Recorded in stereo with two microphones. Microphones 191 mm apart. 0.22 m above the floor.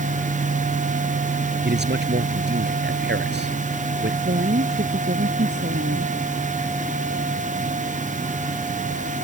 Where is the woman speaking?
60° right (ahead or behind).